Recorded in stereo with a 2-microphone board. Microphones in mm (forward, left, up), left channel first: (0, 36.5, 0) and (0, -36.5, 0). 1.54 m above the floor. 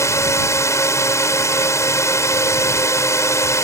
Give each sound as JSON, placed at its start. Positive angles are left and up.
{"t": 0.0, "sound": "a drone", "side_deg": 40}